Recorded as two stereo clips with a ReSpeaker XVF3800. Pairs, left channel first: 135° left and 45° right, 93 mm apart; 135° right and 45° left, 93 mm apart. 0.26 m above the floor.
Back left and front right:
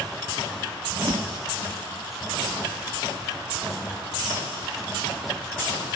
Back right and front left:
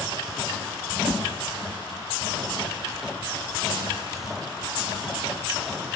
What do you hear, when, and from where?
0.9 s a whoosh: 65° right, 1.3 m